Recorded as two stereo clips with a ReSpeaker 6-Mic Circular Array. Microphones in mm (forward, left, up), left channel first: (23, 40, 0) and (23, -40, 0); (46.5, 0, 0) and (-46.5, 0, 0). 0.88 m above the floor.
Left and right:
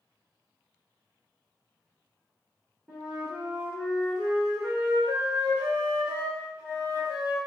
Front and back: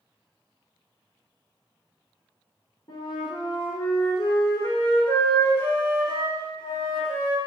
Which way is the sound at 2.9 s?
15° right.